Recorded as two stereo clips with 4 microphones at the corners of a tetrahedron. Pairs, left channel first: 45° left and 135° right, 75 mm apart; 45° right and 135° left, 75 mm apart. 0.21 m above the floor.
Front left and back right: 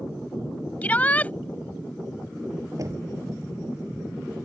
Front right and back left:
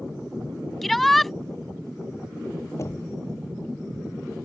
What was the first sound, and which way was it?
A shout, 40° left.